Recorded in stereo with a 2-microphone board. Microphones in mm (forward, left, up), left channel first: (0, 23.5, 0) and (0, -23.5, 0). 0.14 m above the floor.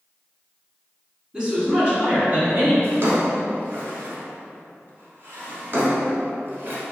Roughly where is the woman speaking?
Centre.